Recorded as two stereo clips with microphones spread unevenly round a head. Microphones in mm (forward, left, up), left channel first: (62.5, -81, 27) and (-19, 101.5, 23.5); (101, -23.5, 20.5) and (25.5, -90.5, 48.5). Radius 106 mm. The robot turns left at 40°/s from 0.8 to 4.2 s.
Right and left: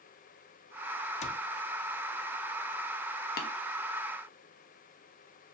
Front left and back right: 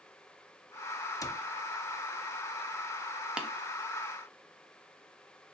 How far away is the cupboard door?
About 0.6 m.